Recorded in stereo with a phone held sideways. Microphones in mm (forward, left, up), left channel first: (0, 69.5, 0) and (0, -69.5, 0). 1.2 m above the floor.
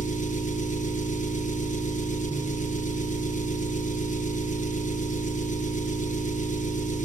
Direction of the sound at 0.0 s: 65° left (ahead or behind).